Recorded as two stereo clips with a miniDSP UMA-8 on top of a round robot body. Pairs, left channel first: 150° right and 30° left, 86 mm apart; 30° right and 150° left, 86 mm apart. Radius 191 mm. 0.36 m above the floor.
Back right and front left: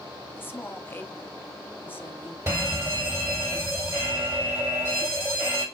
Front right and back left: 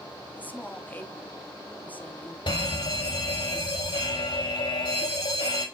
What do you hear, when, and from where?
0.4 s a woman speaking: 95° right, 1.6 m
2.5 s a fire alarm: 25° right, 5.5 m